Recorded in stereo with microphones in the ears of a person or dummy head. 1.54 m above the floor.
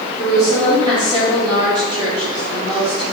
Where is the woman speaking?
25° right (ahead or behind), 3.5 m.